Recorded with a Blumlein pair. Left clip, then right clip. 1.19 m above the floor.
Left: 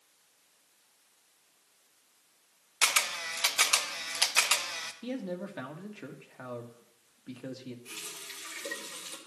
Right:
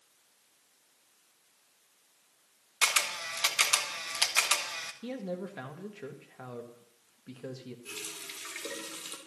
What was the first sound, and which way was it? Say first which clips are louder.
A camera shutter: even; straight ahead.